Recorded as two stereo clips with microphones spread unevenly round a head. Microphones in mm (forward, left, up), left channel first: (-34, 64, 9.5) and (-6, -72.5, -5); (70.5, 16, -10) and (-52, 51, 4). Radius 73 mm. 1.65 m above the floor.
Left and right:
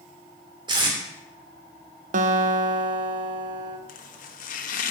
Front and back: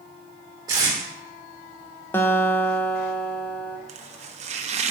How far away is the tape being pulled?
About 2.5 m.